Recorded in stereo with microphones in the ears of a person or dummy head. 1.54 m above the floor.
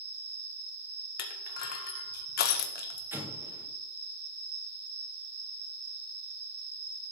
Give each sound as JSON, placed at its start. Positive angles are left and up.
{"t": 0.0, "sound": "an insect", "side_deg": -60, "distance_m": 4.5}
{"t": 1.2, "sound": "crushing", "side_deg": 50, "distance_m": 1.9}
{"t": 3.1, "sound": "an explosion", "side_deg": -15, "distance_m": 2.0}